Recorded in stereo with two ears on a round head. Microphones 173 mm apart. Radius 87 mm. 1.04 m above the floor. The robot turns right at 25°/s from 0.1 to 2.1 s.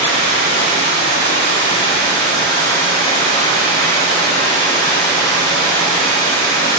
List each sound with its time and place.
0.0 s running water: 110° left, 1.1 m; by 6.8 s 160° left, 1.1 m